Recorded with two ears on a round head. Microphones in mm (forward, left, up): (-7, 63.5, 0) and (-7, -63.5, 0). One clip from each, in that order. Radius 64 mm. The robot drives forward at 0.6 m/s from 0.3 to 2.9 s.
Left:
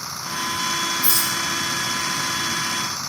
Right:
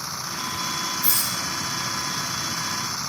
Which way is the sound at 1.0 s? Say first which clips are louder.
Left 4 dB; centre (ahead or behind).